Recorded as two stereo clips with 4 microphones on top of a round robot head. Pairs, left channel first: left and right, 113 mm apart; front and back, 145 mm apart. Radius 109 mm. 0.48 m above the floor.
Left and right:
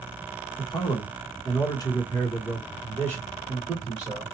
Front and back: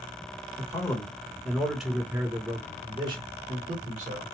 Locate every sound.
0.6 s a man speaking: 60° left, 1.4 m; by 4.2 s 175° left, 1.5 m